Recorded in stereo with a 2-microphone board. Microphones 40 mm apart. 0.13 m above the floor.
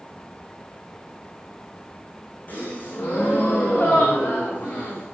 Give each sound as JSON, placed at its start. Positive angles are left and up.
{"t": 2.5, "sound": "a gasp", "side_deg": 45, "distance_m": 5.5}